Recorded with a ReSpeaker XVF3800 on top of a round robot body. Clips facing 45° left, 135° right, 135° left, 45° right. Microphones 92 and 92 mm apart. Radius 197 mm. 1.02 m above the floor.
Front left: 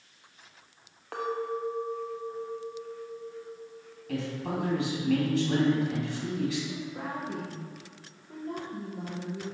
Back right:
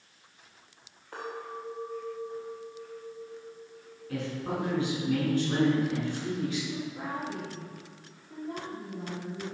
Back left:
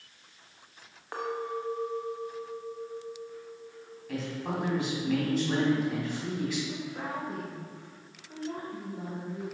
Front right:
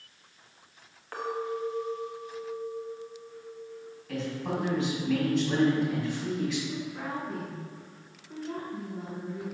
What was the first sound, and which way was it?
A clink, 65° left.